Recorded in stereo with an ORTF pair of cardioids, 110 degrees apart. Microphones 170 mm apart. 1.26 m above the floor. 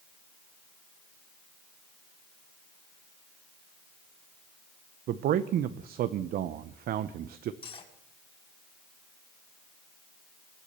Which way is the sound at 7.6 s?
30° left.